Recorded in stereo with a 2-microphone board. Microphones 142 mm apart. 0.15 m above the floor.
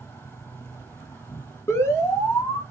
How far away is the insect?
About 0.8 m.